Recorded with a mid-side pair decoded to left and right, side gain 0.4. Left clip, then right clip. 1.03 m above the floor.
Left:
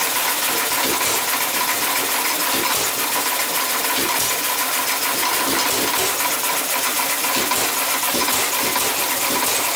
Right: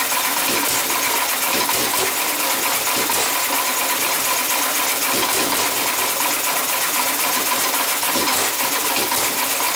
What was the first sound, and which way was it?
Only background noise.